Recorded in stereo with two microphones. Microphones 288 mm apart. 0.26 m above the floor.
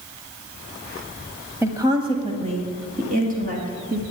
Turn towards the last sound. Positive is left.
turn(degrees=-30)  # may be behind; listen again after turning